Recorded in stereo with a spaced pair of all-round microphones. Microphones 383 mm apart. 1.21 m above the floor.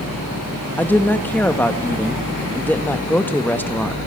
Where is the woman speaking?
5° left (ahead or behind), 1.3 m.